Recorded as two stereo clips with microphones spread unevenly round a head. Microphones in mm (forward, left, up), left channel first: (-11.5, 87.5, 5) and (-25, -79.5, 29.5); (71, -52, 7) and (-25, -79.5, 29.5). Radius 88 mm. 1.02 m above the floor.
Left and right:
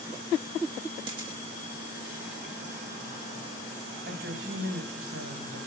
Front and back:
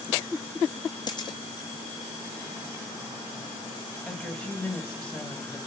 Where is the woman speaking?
65° right, 5.5 m.